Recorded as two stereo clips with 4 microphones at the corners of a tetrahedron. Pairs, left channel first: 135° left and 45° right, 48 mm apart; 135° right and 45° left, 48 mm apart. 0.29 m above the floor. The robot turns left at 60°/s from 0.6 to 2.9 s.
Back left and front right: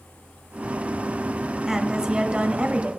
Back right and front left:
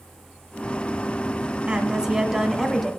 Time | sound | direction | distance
1.7 | a woman speaking | 25° left | 1.3 m